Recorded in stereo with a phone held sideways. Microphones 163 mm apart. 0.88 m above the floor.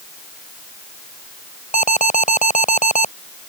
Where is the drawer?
No drawer in this recording.